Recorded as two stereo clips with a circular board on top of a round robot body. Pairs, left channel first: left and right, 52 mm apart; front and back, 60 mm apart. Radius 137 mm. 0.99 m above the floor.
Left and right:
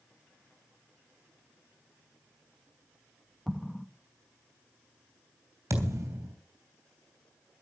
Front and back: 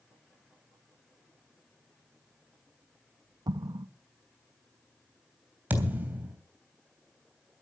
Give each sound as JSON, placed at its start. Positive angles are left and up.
{"t": 3.5, "sound": "an explosion", "azimuth_deg": -175, "distance_m": 1.1}
{"t": 5.7, "sound": "a thud", "azimuth_deg": -115, "distance_m": 3.0}